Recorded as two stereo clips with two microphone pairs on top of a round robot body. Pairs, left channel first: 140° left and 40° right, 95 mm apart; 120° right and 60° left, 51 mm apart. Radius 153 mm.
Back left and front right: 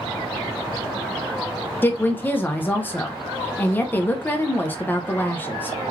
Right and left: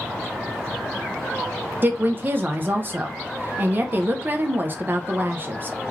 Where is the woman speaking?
85° left, 0.6 m.